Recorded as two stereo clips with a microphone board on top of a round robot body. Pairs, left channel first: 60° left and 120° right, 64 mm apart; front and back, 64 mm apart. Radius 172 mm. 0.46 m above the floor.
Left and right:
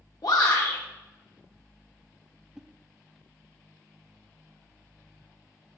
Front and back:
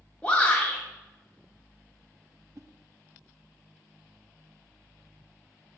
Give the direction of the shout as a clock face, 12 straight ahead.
9 o'clock.